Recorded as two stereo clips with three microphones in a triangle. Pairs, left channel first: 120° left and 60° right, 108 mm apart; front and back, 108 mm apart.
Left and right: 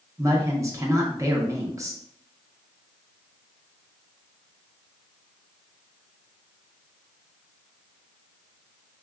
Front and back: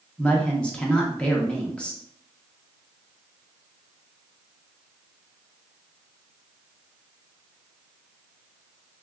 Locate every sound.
0.2 s a woman speaking: 70° right, 0.7 m